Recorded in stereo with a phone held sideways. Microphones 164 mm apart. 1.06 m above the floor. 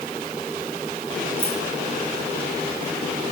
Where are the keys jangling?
15° right (ahead or behind), 8.5 m.